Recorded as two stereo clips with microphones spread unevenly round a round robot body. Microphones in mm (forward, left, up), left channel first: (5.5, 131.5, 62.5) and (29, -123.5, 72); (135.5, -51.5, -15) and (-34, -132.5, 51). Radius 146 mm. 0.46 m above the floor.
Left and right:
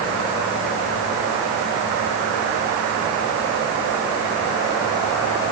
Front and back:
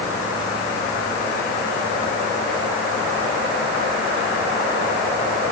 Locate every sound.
Only background noise.